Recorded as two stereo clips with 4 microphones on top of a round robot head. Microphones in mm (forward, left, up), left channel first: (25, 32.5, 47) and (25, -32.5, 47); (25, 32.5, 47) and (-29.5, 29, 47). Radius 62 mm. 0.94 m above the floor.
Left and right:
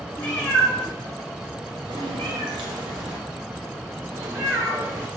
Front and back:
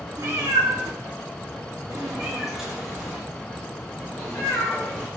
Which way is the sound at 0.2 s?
160° left.